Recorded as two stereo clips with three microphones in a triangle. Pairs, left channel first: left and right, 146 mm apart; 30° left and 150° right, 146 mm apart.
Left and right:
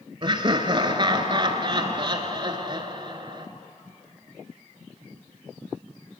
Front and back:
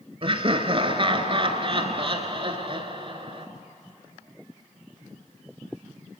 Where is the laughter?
125° right, 1.5 m.